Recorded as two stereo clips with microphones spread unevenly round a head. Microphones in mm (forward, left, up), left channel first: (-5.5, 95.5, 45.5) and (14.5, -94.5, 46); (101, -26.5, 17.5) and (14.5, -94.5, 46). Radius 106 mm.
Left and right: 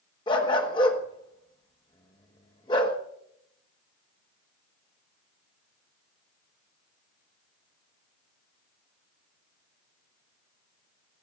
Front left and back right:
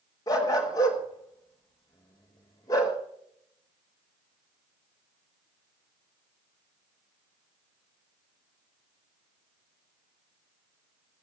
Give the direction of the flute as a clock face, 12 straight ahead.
I don't hear a flute.